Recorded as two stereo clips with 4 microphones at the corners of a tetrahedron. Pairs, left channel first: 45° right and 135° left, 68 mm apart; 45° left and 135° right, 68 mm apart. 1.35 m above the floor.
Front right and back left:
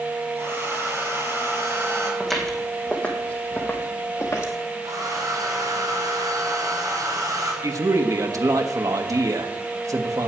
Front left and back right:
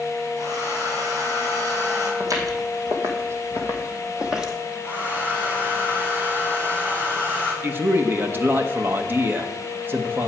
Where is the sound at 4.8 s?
165° left, 3.5 m.